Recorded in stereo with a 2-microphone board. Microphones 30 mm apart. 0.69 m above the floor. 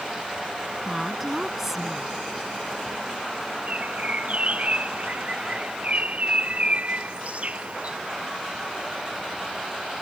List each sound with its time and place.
0.8 s a woman speaking: 10° right (ahead or behind)
3.7 s a bird: 50° right (ahead or behind)